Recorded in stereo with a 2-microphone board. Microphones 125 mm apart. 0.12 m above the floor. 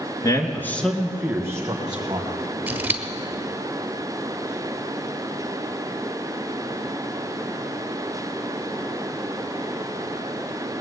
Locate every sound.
0.2 s a man speaking: 30° left (ahead or behind), 1.7 m; by 2.3 s 40° right (ahead or behind), 2.5 m
2.7 s scissors: 15° right (ahead or behind), 1.1 m